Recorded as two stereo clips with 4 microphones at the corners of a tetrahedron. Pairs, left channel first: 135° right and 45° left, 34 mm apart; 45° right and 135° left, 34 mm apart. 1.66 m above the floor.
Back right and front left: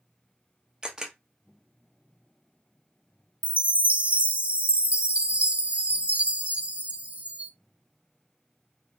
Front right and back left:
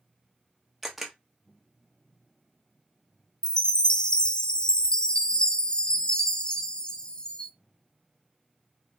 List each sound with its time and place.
0.8 s a camera shutter: 60° left, 1.1 m
3.4 s a chime: 15° left, 0.6 m